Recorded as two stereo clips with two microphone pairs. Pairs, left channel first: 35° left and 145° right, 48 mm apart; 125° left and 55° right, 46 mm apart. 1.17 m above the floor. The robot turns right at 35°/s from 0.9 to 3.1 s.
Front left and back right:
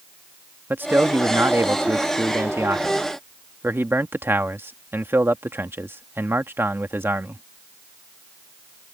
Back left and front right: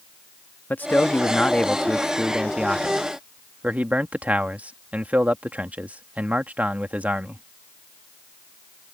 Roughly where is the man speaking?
Behind.